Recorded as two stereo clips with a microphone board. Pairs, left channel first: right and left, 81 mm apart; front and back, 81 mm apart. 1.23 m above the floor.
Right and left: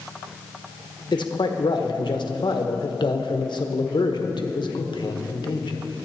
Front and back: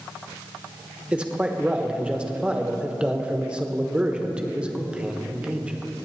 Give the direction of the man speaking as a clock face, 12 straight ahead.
3 o'clock.